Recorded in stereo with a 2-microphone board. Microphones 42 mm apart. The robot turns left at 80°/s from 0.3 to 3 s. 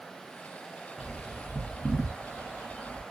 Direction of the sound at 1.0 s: 15° right (ahead or behind).